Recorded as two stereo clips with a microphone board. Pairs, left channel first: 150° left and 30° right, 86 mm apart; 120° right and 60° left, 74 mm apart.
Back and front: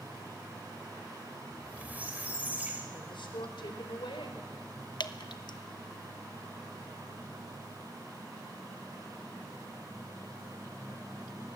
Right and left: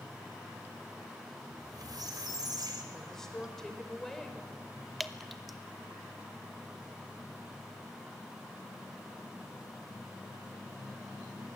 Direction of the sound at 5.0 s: 150° left.